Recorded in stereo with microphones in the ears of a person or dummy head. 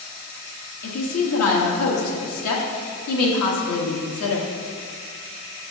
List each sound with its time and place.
0.8 s a woman speaking: 90° left, 1.3 m